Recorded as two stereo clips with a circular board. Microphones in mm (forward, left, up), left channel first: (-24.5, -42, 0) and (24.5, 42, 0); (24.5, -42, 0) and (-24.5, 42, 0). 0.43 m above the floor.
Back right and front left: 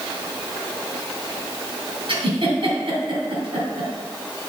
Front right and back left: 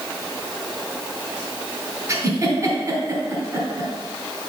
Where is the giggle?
75° left, 2.5 m.